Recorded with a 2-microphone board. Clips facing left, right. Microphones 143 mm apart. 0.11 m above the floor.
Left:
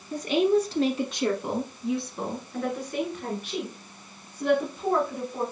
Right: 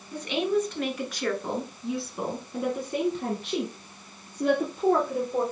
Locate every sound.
0.1 s a woman speaking: 45° left (ahead or behind), 1.6 m; by 5.4 s 55° right (ahead or behind), 2.5 m